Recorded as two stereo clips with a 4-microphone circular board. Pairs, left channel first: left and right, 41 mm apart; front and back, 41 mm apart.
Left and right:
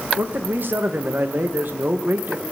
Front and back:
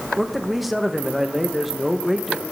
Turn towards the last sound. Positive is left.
turn(degrees=-95)